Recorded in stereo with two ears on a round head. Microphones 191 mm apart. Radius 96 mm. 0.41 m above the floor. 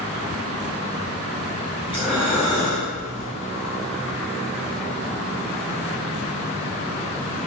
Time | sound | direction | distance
1.9 | breathing | 10° right (ahead or behind) | 1.6 m